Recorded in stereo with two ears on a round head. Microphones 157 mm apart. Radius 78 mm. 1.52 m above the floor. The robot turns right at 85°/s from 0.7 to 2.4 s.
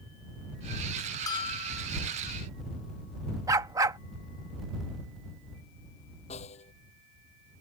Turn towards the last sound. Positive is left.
turn(degrees=40)  # may be behind; listen again after turning